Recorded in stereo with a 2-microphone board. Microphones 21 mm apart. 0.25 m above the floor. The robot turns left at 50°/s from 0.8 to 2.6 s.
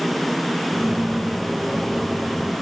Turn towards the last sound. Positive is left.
No sound to turn to.